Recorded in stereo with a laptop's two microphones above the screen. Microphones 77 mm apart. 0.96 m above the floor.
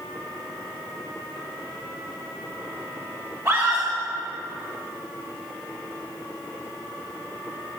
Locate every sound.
3.5 s a scream: 45° right (ahead or behind), 3 m